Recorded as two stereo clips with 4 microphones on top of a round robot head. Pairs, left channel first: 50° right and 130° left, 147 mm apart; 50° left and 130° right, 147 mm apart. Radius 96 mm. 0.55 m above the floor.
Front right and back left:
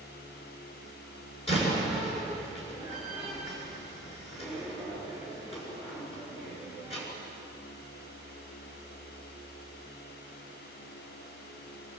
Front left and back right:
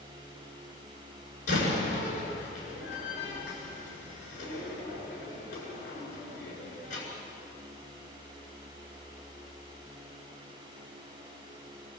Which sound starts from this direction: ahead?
A door slam, at 1.5 s.